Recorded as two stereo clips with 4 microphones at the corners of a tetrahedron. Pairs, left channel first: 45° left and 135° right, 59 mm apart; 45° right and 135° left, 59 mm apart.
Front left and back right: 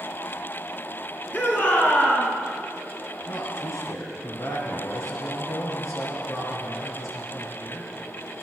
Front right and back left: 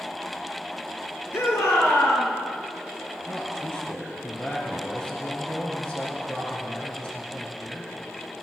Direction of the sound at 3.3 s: 25° left.